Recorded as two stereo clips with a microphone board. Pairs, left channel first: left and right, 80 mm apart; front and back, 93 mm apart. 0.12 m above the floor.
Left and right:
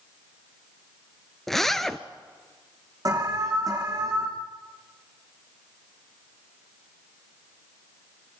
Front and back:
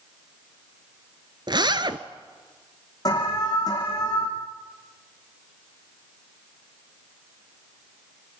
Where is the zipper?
175° left, 1.0 m.